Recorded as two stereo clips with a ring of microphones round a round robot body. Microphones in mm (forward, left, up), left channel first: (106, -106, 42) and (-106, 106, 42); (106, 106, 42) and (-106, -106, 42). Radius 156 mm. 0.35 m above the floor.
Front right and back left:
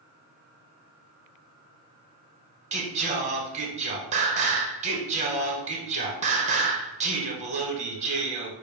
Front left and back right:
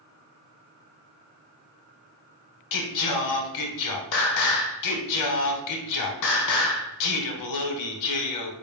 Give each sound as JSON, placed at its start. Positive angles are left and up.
{"t": 2.7, "sound": "singing", "azimuth_deg": 70, "distance_m": 0.8}